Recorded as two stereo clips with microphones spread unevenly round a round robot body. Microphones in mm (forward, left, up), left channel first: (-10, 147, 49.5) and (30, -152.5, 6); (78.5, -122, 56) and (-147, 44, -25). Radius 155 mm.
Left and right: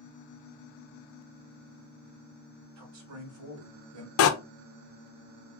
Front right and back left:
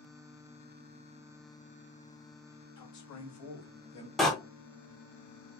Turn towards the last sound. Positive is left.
turn(degrees=75)